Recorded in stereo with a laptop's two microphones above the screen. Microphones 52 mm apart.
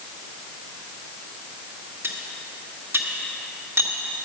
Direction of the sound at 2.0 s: 60° right (ahead or behind).